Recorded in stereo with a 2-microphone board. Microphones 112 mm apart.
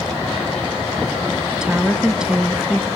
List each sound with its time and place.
1.5 s a woman speaking: 5° right (ahead or behind), 1.8 m